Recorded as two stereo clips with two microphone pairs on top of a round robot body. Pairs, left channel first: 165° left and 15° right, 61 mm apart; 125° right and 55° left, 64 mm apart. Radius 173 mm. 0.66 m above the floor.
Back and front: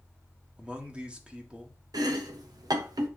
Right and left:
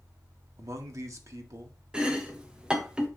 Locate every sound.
0.6 s a man speaking: 50° left, 1.6 m
1.9 s chopping: 20° right, 0.8 m